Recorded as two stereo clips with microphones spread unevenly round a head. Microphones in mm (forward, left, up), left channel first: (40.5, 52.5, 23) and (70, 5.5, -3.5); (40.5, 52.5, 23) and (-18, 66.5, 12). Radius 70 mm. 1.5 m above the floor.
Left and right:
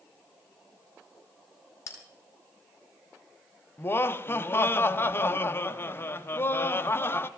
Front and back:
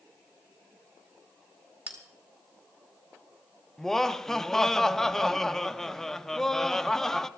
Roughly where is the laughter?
Left.